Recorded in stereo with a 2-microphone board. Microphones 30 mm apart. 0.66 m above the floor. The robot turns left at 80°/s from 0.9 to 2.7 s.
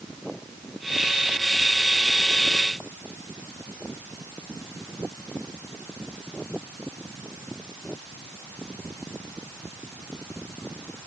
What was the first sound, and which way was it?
Only background noise.